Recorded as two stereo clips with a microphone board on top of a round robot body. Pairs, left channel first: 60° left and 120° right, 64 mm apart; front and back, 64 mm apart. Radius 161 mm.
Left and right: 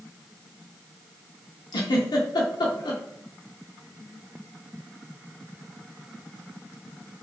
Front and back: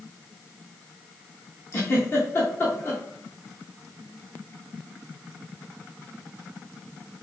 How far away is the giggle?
About 0.5 m.